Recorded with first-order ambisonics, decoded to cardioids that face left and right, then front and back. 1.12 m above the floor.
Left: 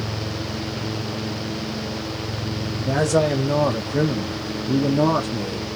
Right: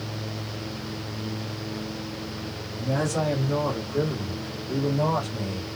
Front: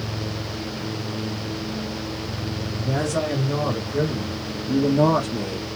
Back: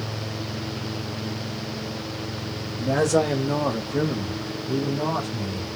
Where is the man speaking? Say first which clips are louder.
Left 7 dB, back 4 dB; 140° left, 1.2 m; by 5.7 s 45° left, 0.9 m.